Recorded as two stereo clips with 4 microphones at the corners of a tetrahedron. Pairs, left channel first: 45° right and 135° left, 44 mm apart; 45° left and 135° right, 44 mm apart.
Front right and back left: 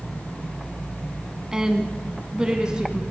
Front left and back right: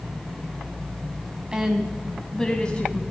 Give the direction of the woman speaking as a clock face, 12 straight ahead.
6 o'clock.